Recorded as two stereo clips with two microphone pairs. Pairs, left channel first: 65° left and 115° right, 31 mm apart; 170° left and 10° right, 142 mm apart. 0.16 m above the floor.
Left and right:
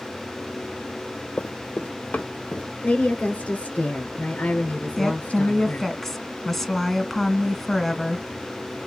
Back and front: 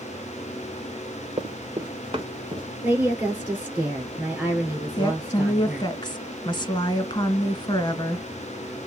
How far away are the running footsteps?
About 0.8 m.